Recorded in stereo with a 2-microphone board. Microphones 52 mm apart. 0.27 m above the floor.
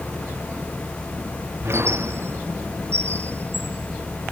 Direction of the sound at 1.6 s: 50° right (ahead or behind).